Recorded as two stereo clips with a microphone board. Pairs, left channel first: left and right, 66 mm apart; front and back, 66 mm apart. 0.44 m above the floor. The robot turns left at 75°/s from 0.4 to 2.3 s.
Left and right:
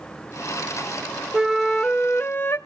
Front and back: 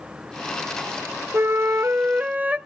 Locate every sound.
1.3 s a flute: 165° right, 0.6 m; by 2.6 s 125° left, 0.6 m